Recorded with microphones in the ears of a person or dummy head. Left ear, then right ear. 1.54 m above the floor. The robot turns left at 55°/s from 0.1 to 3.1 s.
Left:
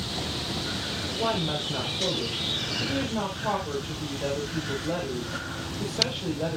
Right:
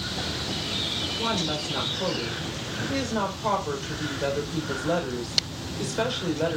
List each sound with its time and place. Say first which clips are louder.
1.1 s a woman speaking: even; 20° left, 5.5 m; by 6.6 s 90° right, 5.5 m